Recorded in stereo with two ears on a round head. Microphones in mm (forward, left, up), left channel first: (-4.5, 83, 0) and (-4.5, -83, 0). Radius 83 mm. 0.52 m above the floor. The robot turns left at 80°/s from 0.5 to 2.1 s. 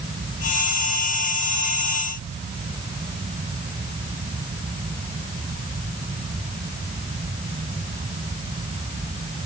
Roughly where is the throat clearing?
I don't hear throat clearing.